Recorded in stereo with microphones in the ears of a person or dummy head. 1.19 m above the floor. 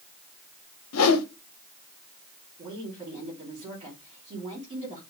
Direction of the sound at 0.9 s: 85° left.